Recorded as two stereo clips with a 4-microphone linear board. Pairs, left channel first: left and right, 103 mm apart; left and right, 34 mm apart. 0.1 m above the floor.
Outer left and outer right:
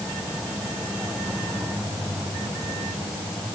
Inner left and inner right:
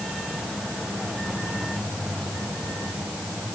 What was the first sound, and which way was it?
Only background noise.